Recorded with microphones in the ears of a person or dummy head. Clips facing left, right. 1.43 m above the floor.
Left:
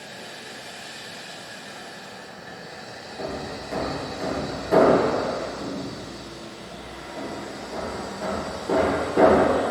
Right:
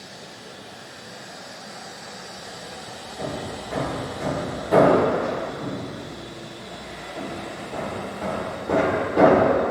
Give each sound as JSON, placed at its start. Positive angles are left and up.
{"t": 3.2, "sound": "hammering", "side_deg": 0, "distance_m": 4.5}